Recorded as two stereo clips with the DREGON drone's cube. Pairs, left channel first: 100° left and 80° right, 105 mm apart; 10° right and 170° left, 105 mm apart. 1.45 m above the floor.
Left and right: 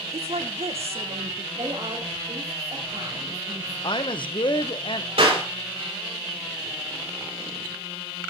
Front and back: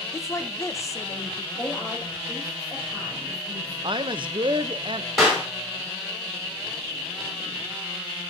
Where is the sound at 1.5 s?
85° right, 5.5 m.